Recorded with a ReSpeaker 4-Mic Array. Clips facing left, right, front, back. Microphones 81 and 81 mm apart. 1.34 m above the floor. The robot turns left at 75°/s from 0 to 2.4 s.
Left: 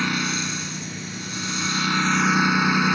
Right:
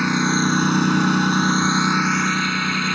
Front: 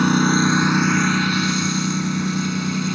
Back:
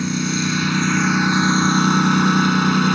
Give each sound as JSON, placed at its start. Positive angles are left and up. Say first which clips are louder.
{"t": 0.0, "sound": "a lawn mower", "louder": "right 7 dB, front 5 dB", "azimuth_deg": -15}